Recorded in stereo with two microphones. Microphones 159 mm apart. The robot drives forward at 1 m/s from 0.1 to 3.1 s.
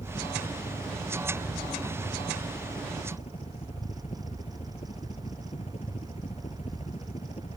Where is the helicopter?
40° left (ahead or behind).